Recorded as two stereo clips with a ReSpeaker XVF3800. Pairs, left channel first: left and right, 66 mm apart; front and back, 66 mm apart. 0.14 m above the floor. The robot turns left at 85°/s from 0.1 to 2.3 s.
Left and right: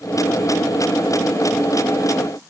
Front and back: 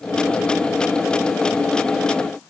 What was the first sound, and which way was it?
Only background noise.